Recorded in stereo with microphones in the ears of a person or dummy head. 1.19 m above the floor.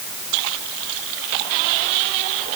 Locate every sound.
Only background noise.